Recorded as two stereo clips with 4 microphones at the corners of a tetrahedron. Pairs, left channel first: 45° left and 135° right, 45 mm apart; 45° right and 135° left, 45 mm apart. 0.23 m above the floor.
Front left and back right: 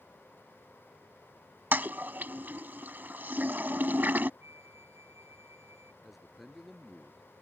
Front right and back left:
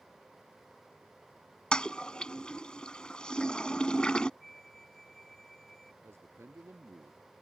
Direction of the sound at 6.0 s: 140° left.